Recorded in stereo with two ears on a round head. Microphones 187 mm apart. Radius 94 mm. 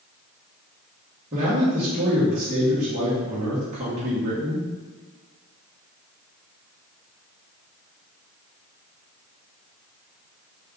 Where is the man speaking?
35° right (ahead or behind), 1.3 m.